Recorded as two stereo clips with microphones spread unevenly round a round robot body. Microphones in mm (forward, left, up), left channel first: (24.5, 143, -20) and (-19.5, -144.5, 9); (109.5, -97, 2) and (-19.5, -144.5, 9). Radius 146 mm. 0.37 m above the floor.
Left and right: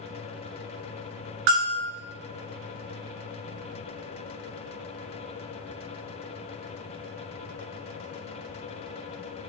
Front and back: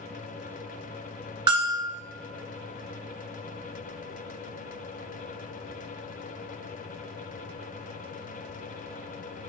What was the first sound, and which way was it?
A bell, 105° right.